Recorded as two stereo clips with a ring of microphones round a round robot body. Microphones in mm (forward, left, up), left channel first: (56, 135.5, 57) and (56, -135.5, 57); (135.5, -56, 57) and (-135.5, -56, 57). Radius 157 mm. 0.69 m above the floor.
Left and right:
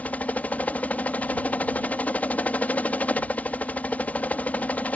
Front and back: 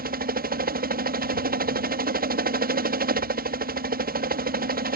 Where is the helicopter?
170° left.